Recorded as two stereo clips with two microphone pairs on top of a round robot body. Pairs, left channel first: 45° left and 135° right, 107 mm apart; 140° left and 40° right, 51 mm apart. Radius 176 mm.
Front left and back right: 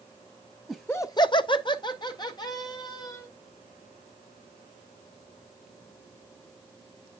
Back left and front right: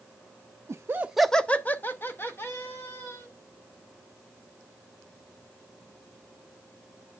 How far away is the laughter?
About 0.8 m.